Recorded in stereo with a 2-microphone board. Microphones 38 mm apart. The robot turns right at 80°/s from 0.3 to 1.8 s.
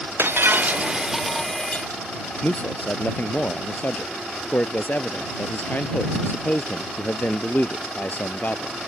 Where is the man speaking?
50° left (ahead or behind).